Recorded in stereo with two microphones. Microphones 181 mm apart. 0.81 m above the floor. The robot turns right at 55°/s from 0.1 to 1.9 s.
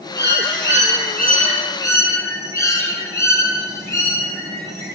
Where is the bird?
70° left, 8.5 m; by 5.0 s 165° left, 8.5 m.